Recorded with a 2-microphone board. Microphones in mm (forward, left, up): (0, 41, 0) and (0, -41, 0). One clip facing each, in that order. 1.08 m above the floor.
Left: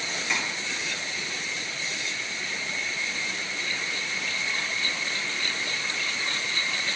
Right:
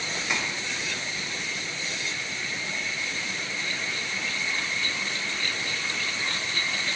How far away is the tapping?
About 1.2 m.